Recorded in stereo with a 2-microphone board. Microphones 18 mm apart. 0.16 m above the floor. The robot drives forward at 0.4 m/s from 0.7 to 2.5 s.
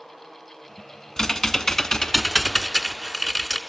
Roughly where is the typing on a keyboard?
Left.